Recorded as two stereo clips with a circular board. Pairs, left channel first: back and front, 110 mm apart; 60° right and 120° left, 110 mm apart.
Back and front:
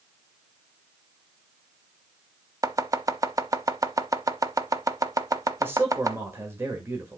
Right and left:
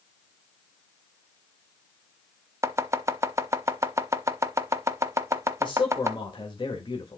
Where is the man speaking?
60° right, 1.7 m.